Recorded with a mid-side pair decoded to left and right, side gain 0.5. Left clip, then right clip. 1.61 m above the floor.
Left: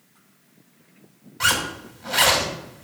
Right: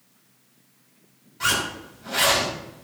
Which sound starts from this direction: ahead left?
A zipper, at 1.4 s.